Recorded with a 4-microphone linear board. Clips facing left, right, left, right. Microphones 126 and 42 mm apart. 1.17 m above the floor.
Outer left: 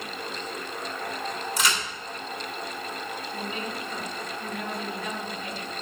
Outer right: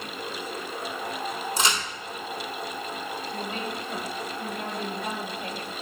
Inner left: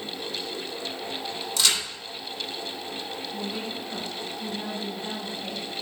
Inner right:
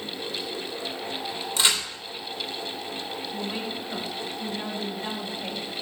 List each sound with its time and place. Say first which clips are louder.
1.6 s a crack: outer right 1 dB, inner right 1 dB; 30° right (ahead or behind), 3 m
3.3 s a woman speaking: even, inner right 1 dB; 60° right (ahead or behind), 5 m